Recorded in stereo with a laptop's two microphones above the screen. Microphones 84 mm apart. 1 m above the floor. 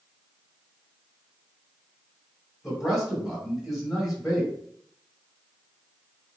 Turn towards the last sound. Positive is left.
turn(degrees=0)  # may be behind; listen again after turning